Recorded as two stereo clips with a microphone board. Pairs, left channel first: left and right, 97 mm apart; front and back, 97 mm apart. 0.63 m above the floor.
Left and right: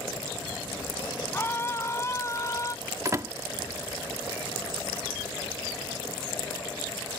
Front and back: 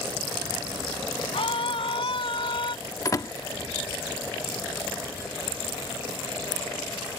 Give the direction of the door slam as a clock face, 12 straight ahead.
1 o'clock.